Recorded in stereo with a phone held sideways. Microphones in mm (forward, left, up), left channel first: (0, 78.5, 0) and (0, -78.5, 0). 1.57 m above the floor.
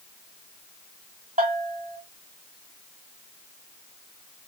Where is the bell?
55° right (ahead or behind), 2 m.